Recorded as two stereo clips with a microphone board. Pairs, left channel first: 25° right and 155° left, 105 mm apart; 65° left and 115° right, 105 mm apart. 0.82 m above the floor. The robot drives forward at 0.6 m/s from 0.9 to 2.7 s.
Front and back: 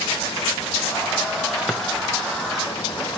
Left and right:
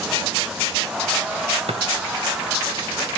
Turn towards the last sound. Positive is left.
turn(degrees=-130)